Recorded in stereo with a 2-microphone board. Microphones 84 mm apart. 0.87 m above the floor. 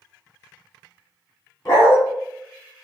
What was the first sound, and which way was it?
A dog barking, 45° left (ahead or behind).